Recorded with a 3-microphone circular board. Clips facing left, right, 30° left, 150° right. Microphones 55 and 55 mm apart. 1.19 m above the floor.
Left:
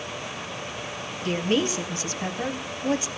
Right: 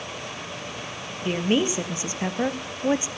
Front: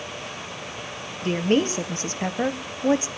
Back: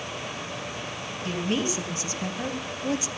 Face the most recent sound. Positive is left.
turn(degrees=-25)